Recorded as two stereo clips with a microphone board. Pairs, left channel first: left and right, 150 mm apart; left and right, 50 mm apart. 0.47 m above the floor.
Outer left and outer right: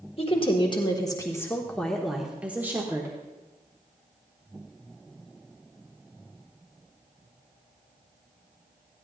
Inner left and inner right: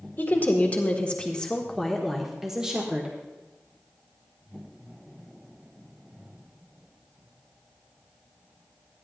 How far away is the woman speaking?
About 1.5 m.